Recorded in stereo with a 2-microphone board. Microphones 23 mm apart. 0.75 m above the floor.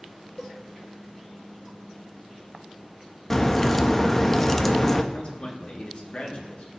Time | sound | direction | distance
0.4 | a cowbell | 35° left (ahead or behind) | 1.2 m
3.3 | a crack | 15° left (ahead or behind) | 0.6 m
5.1 | a man speaking | 45° left (ahead or behind) | 1.7 m